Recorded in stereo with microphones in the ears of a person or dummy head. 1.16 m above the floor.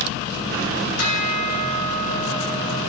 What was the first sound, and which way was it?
A bell, 80° left.